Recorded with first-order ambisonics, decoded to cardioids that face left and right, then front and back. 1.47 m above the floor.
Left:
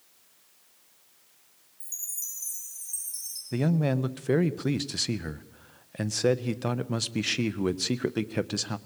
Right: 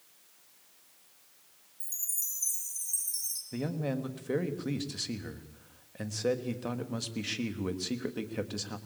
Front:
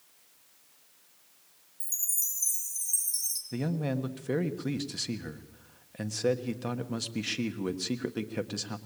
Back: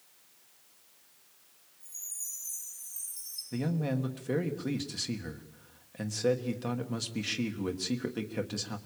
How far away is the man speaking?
About 1.3 m.